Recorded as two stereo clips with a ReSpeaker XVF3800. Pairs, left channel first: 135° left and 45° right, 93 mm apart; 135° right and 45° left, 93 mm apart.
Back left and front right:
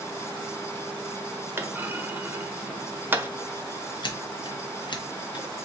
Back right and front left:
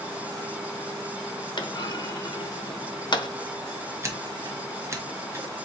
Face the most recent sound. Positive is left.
turn(degrees=105)